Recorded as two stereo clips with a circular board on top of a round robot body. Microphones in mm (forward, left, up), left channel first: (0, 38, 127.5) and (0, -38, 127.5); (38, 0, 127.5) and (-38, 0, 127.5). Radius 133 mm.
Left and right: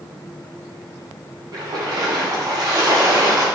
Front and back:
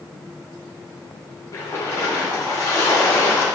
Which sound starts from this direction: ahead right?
A splash, at 1.5 s.